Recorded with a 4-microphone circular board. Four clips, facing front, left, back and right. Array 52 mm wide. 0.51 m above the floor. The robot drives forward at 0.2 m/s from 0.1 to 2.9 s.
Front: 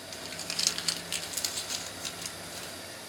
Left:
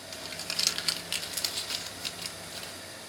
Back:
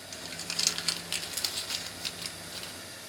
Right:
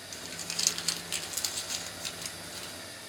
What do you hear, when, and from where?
0.1 s crumpling: 75° left, 0.9 m; by 2.7 s 145° left, 1.0 m